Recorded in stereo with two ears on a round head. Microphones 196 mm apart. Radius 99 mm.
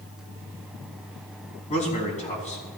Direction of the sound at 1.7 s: 35° left (ahead or behind).